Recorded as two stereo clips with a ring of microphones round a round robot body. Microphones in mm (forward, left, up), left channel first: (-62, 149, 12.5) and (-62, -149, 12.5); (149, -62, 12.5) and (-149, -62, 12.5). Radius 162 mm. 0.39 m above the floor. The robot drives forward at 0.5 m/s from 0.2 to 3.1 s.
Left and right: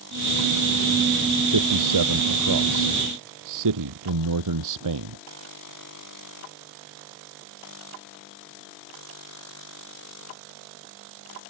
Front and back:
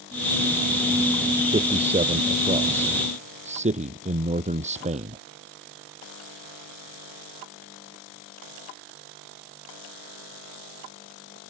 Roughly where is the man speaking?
Right.